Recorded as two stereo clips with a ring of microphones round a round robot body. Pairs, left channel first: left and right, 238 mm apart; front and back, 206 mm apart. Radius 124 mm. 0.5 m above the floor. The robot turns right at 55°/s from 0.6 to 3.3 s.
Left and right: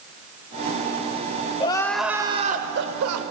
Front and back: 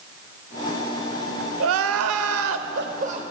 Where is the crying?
160° left, 0.7 m; by 3.2 s 110° right, 0.7 m.